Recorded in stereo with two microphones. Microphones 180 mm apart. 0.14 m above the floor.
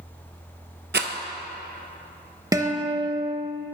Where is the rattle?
75° right (ahead or behind), 0.5 m.